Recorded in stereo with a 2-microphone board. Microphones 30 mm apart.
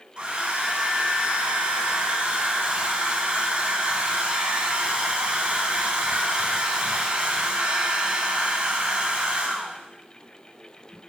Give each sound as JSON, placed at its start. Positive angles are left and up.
{"t": 0.2, "sound": "a hair dryer", "side_deg": -30, "distance_m": 1.6}